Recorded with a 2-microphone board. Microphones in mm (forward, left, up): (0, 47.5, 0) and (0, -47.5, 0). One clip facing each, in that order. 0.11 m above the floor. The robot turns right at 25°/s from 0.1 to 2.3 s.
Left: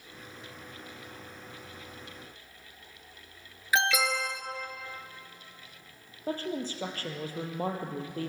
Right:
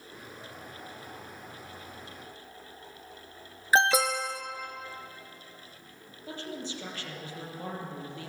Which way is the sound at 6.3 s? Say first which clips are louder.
Left 6 dB; 45° left (ahead or behind).